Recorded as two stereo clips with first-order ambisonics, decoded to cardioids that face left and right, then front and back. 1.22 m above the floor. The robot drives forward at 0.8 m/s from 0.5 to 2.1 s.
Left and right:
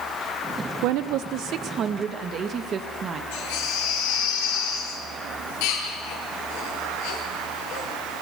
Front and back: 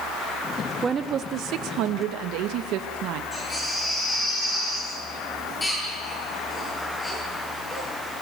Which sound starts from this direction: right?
A woman speaking, at 0.8 s.